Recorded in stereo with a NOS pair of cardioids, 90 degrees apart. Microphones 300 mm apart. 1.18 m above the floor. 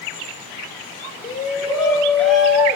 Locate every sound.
1.2 s a shout: 25° left, 1.3 m; by 2.8 s 10° right, 1.3 m